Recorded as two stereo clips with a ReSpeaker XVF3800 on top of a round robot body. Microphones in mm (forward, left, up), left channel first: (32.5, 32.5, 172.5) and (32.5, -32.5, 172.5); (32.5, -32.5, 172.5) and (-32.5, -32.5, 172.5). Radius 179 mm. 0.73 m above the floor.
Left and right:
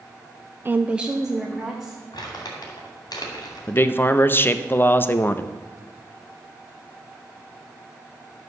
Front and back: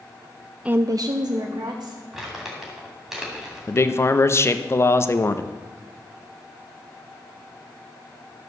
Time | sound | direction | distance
0.7 | a woman speaking | 115° right | 0.5 m
2.1 | crumpling | 95° left | 2.5 m
3.7 | a man speaking | 40° left | 0.8 m